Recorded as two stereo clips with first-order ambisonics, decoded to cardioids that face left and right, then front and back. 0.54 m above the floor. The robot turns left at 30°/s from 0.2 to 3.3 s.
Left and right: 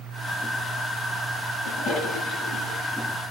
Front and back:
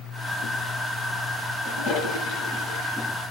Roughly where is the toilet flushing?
Ahead left.